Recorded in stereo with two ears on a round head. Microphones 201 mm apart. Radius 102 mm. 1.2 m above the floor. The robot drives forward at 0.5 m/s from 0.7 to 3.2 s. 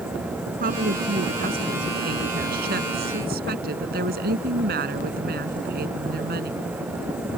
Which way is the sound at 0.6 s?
40° right (ahead or behind).